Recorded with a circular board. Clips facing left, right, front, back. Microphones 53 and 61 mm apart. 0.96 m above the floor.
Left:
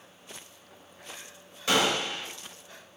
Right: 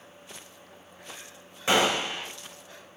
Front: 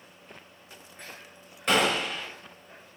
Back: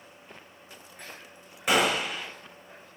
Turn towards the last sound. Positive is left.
turn(degrees=-110)